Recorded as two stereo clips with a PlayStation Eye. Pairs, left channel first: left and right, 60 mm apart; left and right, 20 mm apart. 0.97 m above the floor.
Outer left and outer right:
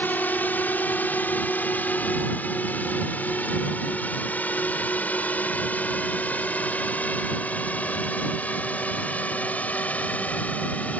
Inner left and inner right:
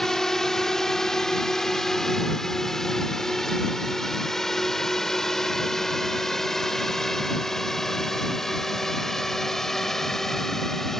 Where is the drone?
30° left (ahead or behind); by 11.0 s 25° left (ahead or behind).